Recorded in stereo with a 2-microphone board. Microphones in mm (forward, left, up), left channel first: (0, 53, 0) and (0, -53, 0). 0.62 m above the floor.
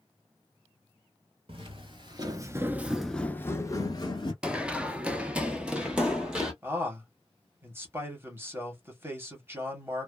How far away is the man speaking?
About 1.2 m.